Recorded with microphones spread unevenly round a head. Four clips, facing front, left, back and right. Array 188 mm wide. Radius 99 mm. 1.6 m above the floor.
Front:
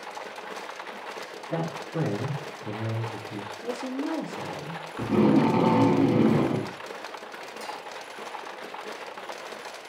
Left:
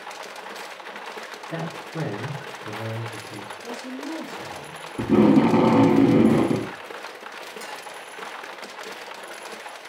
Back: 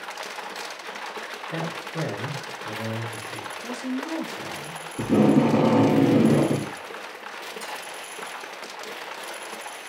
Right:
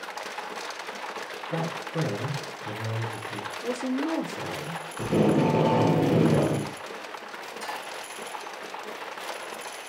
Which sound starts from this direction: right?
A woman speaking, at 3.6 s.